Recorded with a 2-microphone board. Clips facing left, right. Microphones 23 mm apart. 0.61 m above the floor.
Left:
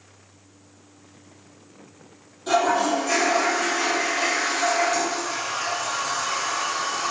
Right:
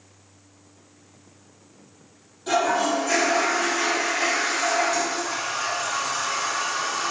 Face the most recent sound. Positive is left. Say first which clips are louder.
# left 1 dB
turn(degrees=0)  # may be behind; listen again after turning